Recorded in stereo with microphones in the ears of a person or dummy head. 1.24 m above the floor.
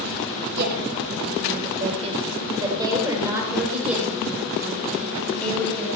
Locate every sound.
0.5 s a woman speaking: 50° right (ahead or behind), 4 m; by 5.9 s 10° left (ahead or behind), 6.5 m